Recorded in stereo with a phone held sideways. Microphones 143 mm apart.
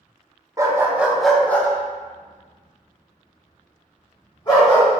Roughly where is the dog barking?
Right.